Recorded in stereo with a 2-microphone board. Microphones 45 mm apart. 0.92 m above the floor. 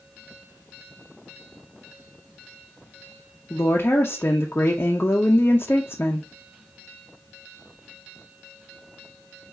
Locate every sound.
3.5 s a woman speaking: 50° left (ahead or behind), 0.6 m